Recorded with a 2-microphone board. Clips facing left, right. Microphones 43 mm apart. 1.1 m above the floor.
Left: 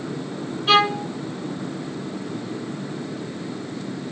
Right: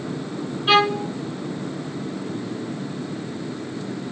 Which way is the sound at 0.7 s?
10° right (ahead or behind).